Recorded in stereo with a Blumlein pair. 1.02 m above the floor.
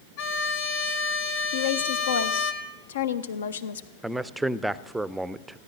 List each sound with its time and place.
0.2 s a violin: 50° left, 1.5 m
1.5 s a woman speaking: 65° left, 0.8 m
4.0 s a man speaking: 5° right, 0.5 m